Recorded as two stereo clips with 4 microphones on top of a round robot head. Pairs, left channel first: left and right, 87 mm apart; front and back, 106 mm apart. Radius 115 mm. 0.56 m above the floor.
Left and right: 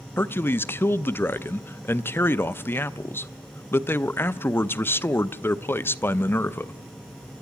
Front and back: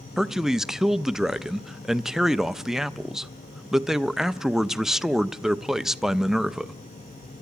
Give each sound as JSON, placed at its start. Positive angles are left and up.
{"t": 0.2, "sound": "a man speaking", "azimuth_deg": 100, "distance_m": 0.7}